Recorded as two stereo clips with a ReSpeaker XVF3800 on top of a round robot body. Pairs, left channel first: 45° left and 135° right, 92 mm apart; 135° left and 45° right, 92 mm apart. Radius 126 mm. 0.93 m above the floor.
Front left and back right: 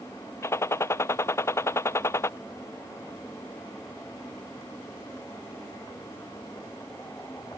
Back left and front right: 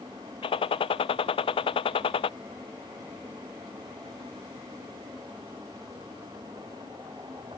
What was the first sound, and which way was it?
A gunshot, 110° left.